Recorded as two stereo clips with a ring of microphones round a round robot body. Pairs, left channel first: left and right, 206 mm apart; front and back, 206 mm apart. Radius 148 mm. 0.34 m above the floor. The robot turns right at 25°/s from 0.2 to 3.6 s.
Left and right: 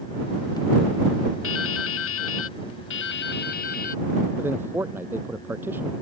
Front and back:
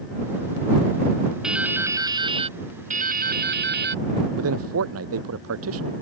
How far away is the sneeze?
I don't hear a sneeze.